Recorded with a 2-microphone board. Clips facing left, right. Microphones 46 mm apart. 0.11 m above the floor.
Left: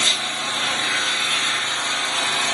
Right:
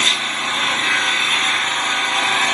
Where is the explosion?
I don't hear an explosion.